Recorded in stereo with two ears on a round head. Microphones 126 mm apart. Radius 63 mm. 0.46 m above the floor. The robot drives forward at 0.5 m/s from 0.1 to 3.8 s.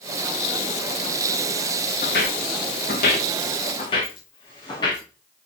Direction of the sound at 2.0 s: 70° left (ahead or behind).